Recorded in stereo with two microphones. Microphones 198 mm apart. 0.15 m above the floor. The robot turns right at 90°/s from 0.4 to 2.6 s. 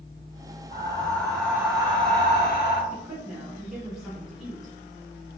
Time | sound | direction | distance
0.7 | breathing | 115° left | 1.2 m
2.9 | a woman speaking | 5° right (ahead or behind) | 1.4 m